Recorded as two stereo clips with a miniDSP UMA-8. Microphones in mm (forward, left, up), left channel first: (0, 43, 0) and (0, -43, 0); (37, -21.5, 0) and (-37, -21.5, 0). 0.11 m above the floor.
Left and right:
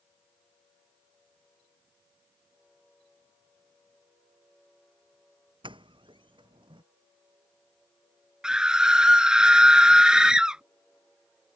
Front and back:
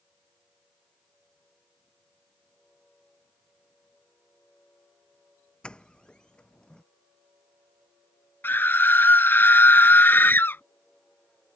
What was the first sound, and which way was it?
A doorbell, 80° right.